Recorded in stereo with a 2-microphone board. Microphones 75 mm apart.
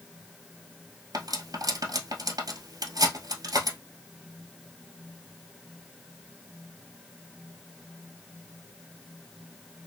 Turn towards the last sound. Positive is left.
turn(degrees=-60)  # may be behind; listen again after turning